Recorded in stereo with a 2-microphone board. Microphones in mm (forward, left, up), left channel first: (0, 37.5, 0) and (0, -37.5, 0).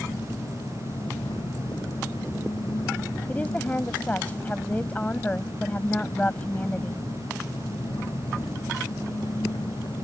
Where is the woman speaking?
20° left (ahead or behind).